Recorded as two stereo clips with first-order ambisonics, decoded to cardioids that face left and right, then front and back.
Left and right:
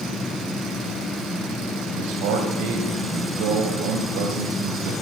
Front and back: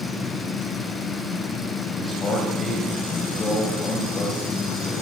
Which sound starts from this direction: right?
A man speaking, at 2.0 s.